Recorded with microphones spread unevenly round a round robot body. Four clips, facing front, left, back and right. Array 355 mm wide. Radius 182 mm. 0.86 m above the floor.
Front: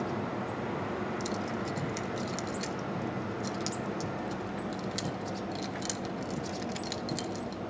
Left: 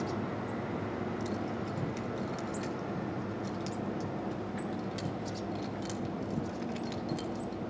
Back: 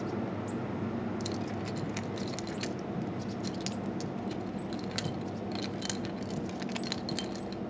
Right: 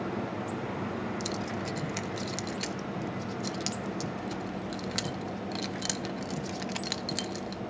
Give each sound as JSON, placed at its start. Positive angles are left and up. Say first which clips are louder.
{"t": 1.2, "sound": "keys jangling", "louder": "right 1 dB, front 2 dB", "azimuth_deg": -110, "distance_m": 0.9}